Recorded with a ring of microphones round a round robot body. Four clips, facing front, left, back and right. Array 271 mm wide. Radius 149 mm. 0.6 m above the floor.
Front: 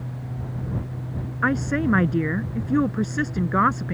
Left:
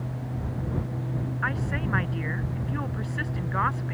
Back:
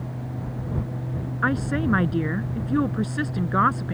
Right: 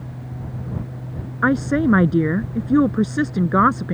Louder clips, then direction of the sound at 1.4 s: Right 16 dB, front 2 dB; 85° right.